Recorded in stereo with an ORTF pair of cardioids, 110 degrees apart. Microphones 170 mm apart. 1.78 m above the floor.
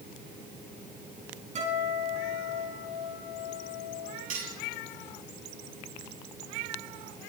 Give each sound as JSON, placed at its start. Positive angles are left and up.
{"t": 1.6, "sound": "a guitar", "azimuth_deg": -40, "distance_m": 7.0}
{"t": 4.3, "sound": "cutlery clinking", "azimuth_deg": -45, "distance_m": 8.0}